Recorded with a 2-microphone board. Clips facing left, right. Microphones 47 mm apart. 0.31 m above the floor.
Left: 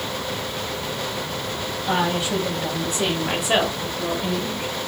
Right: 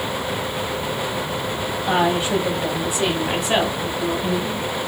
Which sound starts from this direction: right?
A woman speaking, at 1.9 s.